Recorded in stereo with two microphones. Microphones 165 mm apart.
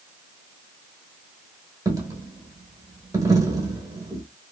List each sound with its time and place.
1.9 s a dropped coin: 20° right (ahead or behind), 0.9 m